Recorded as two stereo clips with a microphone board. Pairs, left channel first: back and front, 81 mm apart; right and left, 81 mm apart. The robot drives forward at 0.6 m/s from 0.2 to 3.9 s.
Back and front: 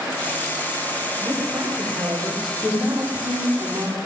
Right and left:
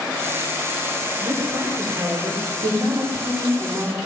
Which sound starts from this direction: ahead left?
A woman speaking, at 1.2 s.